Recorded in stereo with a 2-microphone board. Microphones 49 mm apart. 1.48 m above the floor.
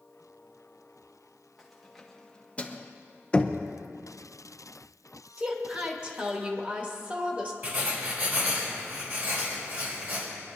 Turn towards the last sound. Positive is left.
turn(degrees=-45)  # may be behind; listen again after turning